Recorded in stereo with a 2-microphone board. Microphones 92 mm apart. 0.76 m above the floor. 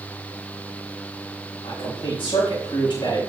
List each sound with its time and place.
1.6 s a man speaking: 75° left (ahead or behind), 4 m; by 3.3 s 55° left (ahead or behind), 4 m